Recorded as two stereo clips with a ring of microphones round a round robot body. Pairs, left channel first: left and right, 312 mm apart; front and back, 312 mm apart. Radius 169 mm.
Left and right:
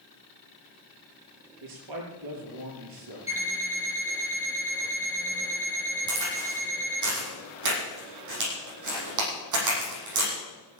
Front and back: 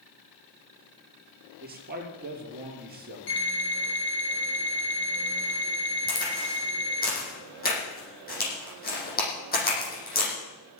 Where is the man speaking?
120° right, 5.5 m.